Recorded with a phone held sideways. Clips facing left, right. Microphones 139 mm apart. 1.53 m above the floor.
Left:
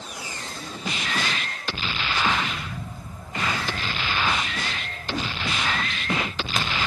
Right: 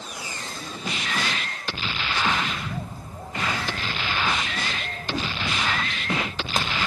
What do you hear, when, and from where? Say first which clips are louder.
2.5 s a bird: right 2 dB; 35° right (ahead or behind), 0.8 m